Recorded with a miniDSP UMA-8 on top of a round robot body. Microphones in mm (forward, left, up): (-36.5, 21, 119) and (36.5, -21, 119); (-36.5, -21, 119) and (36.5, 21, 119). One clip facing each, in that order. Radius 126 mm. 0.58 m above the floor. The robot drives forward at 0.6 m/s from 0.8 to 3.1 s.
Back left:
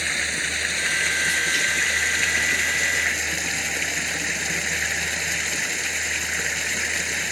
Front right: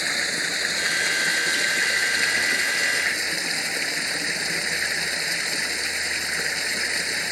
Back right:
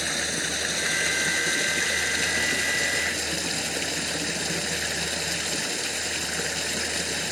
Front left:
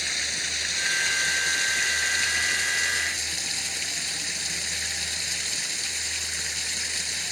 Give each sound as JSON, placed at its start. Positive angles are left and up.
{"t": 0.0, "sound": "running water", "azimuth_deg": -105}